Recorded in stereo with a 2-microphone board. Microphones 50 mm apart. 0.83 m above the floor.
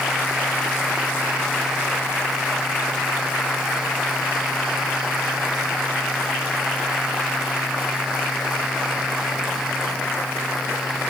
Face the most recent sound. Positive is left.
No sound to turn to.